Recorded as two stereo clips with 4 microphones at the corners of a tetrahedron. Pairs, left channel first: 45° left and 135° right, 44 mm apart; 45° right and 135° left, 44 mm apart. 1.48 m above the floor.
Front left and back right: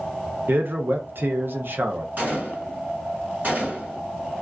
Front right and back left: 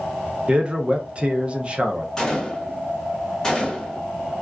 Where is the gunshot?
115° right, 1.8 m.